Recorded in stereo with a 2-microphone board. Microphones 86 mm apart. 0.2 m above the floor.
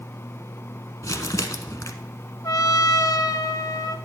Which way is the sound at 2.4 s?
45° left (ahead or behind).